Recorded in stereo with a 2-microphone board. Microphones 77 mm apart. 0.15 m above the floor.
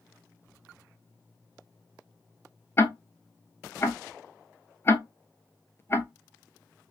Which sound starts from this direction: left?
Ticking, at 2.8 s.